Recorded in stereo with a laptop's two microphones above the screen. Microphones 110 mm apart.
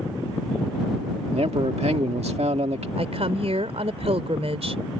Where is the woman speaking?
70° right (ahead or behind).